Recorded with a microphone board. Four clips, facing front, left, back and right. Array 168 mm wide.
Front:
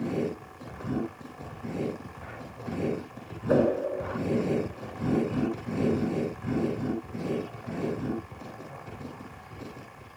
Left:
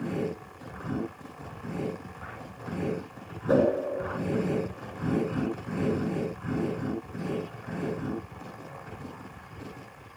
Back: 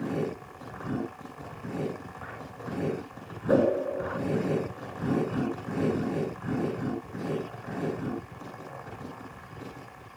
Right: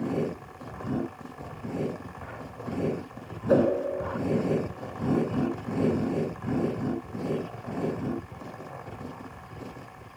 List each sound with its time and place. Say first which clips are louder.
3.5 s a whoosh: right 1 dB, even; 130° left, 1.4 m